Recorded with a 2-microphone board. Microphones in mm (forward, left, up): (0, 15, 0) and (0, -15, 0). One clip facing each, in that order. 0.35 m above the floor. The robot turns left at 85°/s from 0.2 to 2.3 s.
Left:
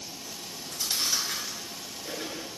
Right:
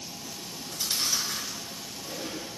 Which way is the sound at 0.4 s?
45° right (ahead or behind).